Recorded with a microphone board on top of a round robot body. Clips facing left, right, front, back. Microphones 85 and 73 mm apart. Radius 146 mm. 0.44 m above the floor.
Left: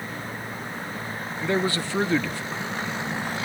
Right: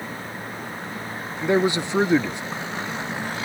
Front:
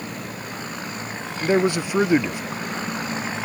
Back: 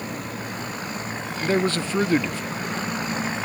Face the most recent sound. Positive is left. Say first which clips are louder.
# right 5 dB, front 3 dB
turn(degrees=-50)